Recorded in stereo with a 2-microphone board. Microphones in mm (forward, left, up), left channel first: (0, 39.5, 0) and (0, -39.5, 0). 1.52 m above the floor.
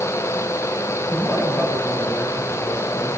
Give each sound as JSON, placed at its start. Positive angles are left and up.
{"t": 1.1, "sound": "a man speaking", "side_deg": 40, "distance_m": 9.5}